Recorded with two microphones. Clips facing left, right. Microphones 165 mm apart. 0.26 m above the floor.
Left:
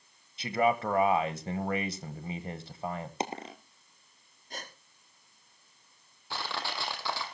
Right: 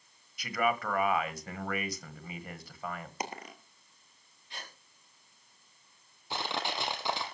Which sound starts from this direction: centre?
Crushing, at 6.3 s.